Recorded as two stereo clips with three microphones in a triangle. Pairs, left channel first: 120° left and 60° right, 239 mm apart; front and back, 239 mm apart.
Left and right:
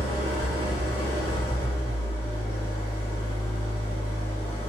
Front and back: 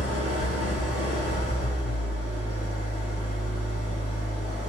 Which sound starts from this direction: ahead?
An engine running, at 0.0 s.